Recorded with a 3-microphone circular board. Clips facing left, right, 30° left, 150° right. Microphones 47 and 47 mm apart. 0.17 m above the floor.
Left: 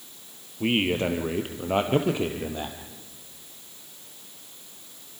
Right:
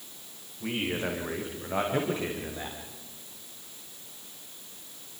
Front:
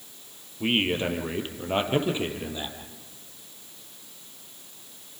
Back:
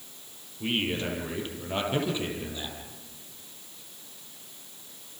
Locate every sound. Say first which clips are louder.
0.6 s a man speaking: left 7 dB, front 4 dB; 85° left, 3.5 m; by 2.8 s 95° left, 4.5 m